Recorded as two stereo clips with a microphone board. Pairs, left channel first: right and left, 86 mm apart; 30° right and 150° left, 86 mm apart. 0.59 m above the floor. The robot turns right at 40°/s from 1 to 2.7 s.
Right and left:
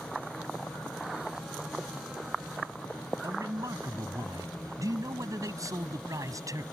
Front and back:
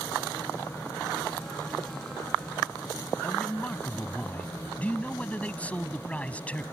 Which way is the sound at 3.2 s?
45° left.